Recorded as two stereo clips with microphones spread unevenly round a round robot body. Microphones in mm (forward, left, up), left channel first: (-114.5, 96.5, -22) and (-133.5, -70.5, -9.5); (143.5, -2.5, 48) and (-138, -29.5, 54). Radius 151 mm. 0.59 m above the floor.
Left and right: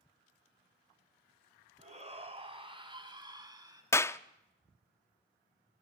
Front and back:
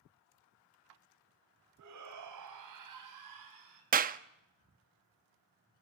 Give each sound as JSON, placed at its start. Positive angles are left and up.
{"t": 1.8, "sound": "a shout", "azimuth_deg": -145, "distance_m": 4.5}
{"t": 3.9, "sound": "a clap", "azimuth_deg": 140, "distance_m": 0.7}